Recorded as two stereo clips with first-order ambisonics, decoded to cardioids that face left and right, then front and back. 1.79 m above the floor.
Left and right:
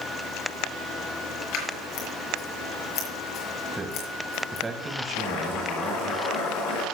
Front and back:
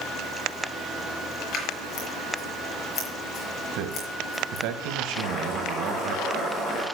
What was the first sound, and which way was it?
Scissors, 55° left.